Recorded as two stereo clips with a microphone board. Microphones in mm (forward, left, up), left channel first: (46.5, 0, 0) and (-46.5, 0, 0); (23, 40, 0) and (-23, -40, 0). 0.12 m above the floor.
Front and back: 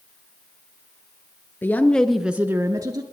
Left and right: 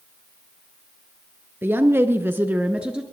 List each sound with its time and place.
1.6 s a woman speaking: 60° right, 1.6 m; by 3.0 s 160° left, 1.5 m